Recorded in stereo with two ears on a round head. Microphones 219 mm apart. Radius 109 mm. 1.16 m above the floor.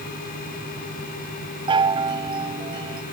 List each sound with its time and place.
1.7 s a chime: 20° right (ahead or behind)